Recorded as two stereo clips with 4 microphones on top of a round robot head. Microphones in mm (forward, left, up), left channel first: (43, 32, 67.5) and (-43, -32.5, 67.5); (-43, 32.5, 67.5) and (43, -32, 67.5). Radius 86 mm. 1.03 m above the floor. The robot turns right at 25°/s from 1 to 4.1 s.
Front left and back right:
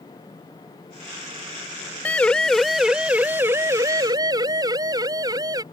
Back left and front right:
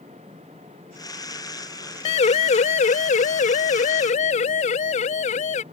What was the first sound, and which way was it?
A siren, 115° left.